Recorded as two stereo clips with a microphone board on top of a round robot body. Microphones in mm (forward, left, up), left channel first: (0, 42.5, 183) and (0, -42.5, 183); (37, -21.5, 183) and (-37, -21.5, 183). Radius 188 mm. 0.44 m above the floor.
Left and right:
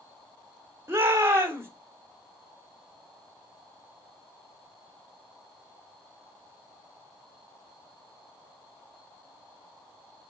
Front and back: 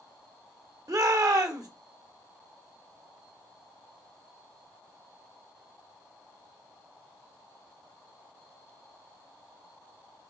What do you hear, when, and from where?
0.9 s a shout: 150° right, 1.9 m